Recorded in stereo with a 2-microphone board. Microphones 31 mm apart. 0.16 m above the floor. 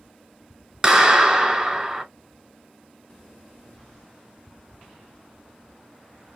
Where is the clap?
15° right (ahead or behind), 1.4 m.